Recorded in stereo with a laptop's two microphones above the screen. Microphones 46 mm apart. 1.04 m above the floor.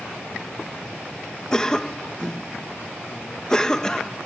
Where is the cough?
15° left (ahead or behind).